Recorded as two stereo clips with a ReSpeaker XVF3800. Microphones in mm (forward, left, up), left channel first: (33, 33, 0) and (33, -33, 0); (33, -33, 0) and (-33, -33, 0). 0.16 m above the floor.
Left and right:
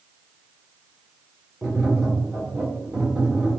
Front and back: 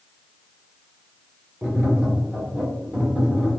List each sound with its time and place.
1.6 s tapping: 145° right, 1.0 m